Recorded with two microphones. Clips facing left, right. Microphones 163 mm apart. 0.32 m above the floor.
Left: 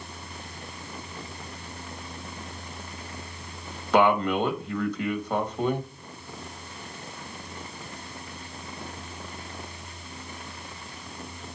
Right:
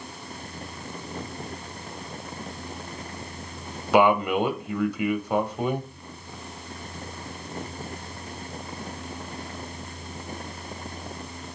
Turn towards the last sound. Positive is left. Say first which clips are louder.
# right 2 dB
turn(degrees=-10)  # may be behind; listen again after turning